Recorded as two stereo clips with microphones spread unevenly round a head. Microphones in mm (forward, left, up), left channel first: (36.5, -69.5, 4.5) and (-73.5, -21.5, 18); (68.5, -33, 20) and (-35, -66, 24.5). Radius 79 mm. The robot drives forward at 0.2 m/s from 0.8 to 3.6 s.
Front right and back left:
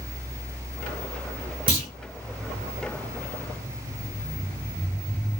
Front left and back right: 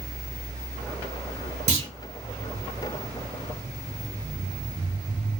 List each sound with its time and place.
1.7 s a clunk: 170° right, 1.5 m; by 1.9 s 175° right, 1.5 m